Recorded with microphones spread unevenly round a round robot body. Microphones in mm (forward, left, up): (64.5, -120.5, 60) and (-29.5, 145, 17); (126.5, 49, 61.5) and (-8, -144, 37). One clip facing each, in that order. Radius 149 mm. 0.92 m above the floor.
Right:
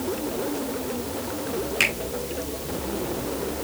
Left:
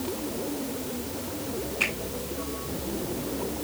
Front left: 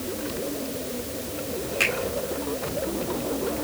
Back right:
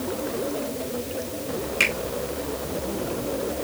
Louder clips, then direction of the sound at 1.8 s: Right 3 dB, even; 70° right.